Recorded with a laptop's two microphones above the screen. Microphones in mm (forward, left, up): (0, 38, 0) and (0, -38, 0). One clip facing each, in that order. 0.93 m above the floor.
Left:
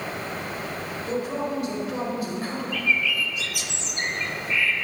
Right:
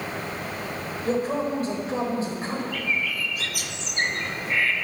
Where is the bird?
50° right (ahead or behind), 0.9 m.